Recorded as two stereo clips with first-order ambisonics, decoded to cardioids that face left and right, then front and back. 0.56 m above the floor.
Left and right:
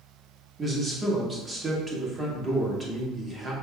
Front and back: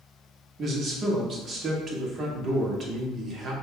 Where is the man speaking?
150° right, 0.9 m.